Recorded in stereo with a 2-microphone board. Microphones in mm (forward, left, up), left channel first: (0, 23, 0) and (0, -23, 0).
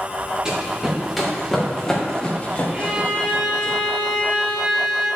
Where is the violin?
10° right (ahead or behind), 2.5 m.